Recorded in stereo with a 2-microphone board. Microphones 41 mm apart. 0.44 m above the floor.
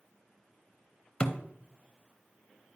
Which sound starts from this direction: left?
A thud, at 1.2 s.